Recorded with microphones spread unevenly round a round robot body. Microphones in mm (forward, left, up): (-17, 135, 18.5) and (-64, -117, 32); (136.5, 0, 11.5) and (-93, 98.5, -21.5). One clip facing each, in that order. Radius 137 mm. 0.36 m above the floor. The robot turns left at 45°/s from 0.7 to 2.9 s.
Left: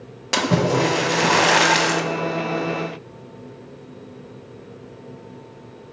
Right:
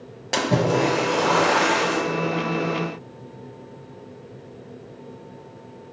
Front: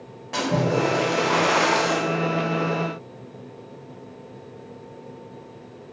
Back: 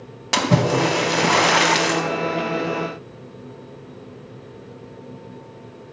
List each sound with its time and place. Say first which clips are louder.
0.3 s a splash: left 1 dB, back 3 dB; 160° left, 0.8 m; by 2.0 s 100° left, 0.8 m